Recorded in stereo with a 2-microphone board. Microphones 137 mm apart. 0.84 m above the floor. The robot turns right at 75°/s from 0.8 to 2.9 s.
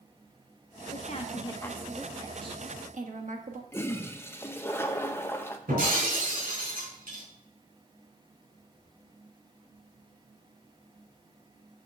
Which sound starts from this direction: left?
A woman speaking, at 0.9 s.